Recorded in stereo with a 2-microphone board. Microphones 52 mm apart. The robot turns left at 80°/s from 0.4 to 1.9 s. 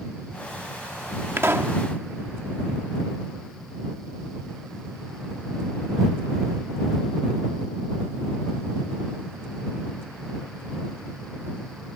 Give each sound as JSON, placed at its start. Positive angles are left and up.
{"t": 1.4, "sound": "a pop", "azimuth_deg": -85}